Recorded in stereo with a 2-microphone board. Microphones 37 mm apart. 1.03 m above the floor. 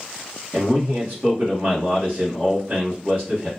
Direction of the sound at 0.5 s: 45° right (ahead or behind).